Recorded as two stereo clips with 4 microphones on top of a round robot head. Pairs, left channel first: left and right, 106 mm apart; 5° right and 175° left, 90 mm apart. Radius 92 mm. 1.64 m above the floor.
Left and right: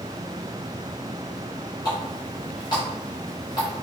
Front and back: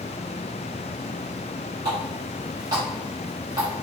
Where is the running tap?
135° left, 1.2 m.